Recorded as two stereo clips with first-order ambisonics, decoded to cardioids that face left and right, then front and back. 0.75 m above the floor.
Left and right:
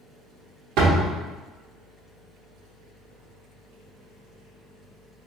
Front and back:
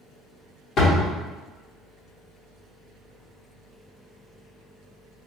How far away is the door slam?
About 0.9 m.